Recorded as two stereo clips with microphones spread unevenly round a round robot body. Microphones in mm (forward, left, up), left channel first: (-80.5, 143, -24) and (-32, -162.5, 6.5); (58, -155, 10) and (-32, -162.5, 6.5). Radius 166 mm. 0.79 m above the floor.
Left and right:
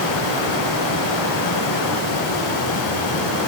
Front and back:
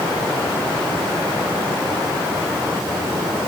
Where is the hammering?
No hammering in this recording.